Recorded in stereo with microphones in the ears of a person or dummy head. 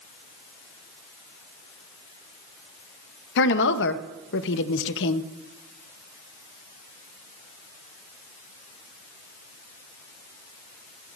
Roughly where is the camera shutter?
No camera shutter in this recording.